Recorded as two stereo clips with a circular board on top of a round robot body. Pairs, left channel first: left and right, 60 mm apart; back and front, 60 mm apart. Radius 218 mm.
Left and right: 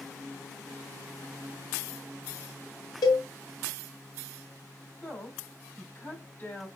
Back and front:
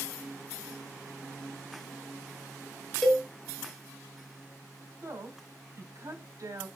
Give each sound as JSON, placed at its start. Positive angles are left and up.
{"t": 3.0, "sound": "a cowbell", "azimuth_deg": 95, "distance_m": 0.5}
{"t": 5.0, "sound": "a woman speaking", "azimuth_deg": 30, "distance_m": 4.5}